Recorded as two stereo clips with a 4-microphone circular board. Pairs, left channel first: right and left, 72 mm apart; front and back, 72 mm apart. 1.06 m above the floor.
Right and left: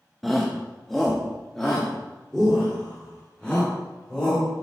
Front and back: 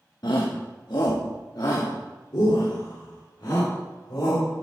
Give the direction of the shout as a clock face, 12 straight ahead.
12 o'clock.